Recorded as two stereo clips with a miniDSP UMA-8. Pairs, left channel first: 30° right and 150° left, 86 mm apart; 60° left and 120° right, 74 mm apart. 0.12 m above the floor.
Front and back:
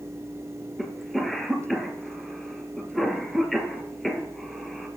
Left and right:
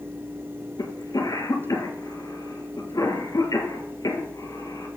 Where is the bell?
I don't hear a bell.